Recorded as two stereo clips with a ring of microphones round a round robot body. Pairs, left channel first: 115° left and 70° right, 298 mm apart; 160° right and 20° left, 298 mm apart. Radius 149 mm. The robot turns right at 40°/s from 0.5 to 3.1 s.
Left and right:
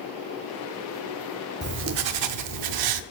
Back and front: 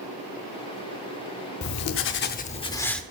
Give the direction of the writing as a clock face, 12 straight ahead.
4 o'clock.